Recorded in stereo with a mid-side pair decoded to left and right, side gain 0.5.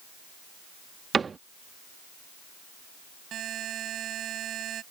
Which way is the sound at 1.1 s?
30° right.